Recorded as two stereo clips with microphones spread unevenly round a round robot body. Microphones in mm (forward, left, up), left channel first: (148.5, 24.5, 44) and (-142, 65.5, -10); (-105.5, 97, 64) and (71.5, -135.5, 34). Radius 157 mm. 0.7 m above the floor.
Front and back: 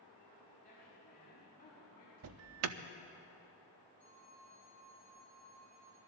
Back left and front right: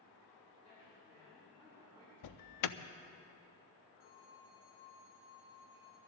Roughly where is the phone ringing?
Left.